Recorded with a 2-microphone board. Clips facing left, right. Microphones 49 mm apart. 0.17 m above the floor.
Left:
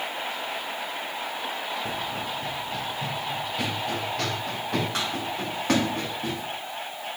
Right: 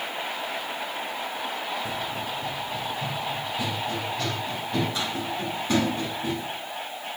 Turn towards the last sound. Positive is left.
turn(degrees=70)  # may be behind; listen again after turning